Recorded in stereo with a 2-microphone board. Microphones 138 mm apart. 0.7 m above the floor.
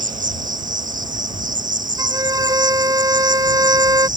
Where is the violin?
25° right (ahead or behind).